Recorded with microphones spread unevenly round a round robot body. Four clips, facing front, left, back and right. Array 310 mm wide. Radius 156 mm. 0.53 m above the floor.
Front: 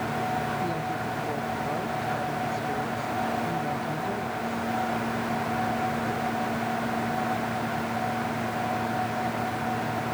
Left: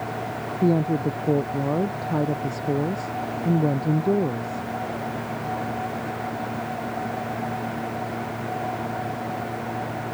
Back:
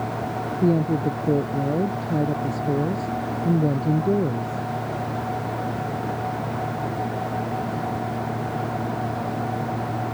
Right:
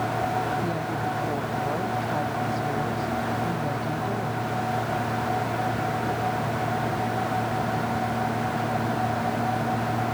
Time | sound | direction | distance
0.6 | a woman speaking | 140° left | ?